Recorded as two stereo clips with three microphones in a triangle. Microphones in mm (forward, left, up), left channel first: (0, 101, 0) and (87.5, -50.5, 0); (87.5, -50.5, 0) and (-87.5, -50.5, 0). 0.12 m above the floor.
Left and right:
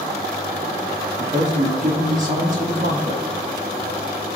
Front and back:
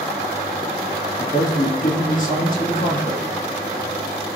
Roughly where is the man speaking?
Ahead right.